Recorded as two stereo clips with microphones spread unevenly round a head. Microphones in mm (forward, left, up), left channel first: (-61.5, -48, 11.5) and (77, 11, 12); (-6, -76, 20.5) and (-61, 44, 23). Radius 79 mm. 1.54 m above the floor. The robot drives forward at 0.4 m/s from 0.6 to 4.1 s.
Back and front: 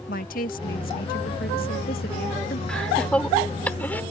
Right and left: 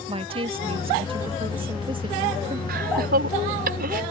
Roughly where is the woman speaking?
Behind.